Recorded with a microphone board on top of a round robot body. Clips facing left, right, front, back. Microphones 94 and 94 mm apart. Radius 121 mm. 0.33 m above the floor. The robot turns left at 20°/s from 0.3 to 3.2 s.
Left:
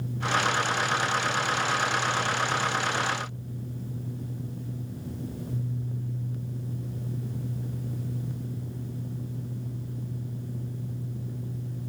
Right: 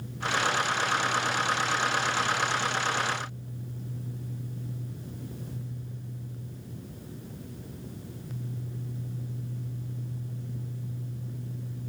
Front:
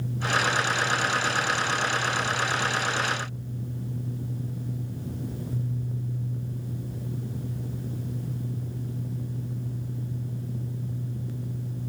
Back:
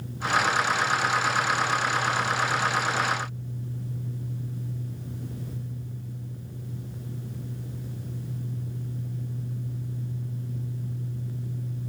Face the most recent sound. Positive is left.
No sound to turn to.